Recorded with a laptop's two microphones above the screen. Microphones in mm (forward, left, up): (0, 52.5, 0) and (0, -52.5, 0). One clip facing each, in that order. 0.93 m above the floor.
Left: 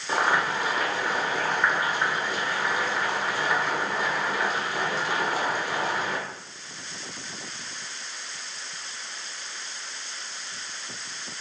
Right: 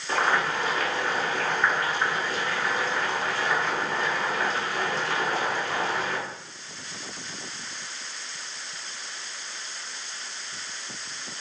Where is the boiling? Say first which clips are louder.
Even; 10° left (ahead or behind), 0.7 m.